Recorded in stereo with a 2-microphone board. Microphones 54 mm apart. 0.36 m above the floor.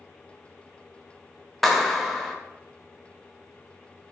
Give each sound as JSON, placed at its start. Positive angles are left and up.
{"t": 1.6, "sound": "a clap", "side_deg": 0, "distance_m": 0.7}